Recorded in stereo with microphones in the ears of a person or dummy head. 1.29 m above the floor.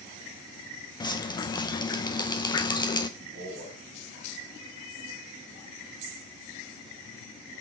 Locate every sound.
1.0 s dripping: 25° left (ahead or behind), 0.6 m
3.2 s a man speaking: 55° right (ahead or behind), 5 m